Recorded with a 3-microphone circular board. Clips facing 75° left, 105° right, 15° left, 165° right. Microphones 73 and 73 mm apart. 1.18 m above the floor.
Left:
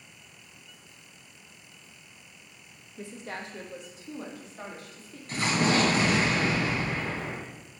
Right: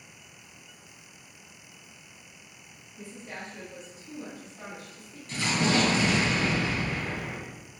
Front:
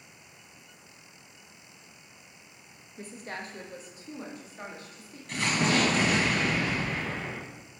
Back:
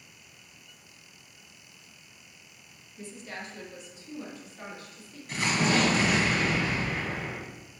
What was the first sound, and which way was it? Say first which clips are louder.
A woman speaking: left 3 dB, front 1 dB; 60° left.